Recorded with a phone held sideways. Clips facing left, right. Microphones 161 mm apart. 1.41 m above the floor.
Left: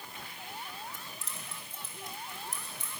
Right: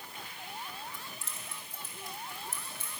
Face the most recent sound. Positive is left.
turn(degrees=15)  # may be behind; listen again after turning